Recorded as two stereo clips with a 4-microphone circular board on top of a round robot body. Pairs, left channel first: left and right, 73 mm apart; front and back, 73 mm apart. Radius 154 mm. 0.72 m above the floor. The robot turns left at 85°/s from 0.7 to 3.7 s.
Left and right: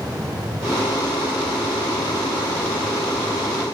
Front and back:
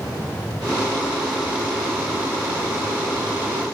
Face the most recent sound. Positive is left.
No sound to turn to.